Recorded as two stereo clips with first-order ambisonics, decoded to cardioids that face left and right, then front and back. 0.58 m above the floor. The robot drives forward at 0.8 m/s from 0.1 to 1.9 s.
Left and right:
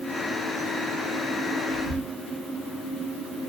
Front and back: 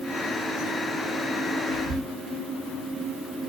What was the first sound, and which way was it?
Whispering, 165° left.